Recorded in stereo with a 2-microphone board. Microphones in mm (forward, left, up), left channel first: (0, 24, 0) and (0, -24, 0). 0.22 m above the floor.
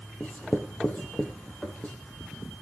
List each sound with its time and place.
0.2 s writing: 30° left (ahead or behind), 3 m